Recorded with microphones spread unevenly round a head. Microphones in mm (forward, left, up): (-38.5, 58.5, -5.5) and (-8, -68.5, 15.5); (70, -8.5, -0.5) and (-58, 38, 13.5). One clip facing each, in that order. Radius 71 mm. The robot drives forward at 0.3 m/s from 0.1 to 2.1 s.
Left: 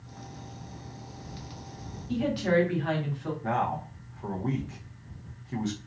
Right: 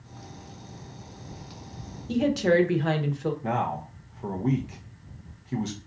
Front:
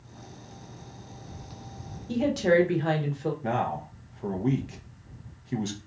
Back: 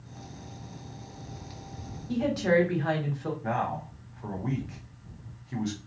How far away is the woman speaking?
About 1.0 m.